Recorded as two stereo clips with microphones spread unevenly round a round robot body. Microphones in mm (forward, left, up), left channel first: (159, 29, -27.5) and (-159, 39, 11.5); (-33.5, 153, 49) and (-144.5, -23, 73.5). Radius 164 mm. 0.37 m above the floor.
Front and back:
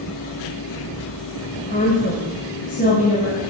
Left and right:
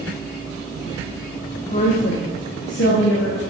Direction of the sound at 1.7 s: 45° left.